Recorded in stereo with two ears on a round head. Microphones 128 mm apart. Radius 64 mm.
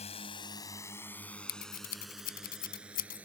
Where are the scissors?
70° left (ahead or behind).